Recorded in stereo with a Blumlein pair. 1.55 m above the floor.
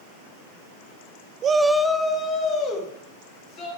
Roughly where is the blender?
No blender in this recording.